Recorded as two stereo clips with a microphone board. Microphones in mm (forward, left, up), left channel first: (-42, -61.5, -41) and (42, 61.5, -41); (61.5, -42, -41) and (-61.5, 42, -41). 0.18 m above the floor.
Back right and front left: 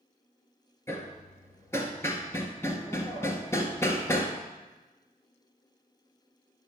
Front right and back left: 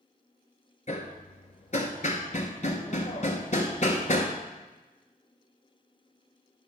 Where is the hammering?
55° right, 1.1 m.